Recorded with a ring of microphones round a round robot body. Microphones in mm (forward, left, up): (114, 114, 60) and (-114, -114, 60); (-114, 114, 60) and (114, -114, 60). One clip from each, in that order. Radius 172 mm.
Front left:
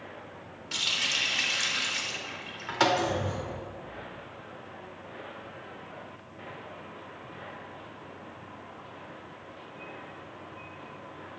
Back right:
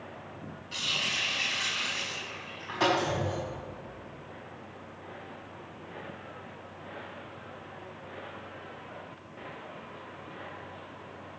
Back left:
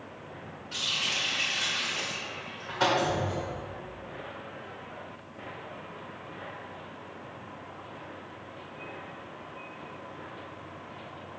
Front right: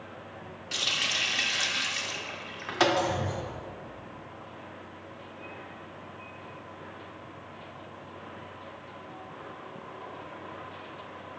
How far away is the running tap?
About 1.0 m.